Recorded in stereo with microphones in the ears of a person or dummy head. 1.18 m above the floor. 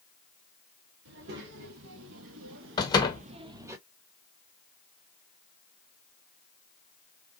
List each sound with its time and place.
1.1 s a child speaking: 65° right (ahead or behind), 2 m; by 3.8 s 15° right (ahead or behind), 1.1 m
2.8 s a door slam: 20° left (ahead or behind), 0.7 m